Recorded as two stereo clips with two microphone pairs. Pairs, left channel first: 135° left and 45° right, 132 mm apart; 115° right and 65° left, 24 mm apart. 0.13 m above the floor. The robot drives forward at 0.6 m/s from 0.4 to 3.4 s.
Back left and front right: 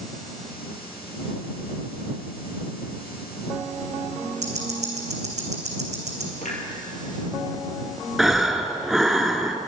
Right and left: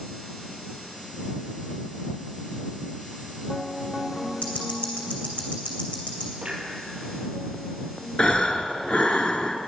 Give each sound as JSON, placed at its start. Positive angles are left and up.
{"t": 4.4, "sound": "ticking", "azimuth_deg": -75, "distance_m": 2.5}
{"t": 6.4, "sound": "a clunk", "azimuth_deg": 120, "distance_m": 3.0}
{"t": 8.2, "sound": "breathing", "azimuth_deg": -140, "distance_m": 0.8}